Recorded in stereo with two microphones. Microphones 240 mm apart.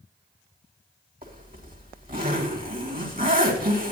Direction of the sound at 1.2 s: 40° right (ahead or behind).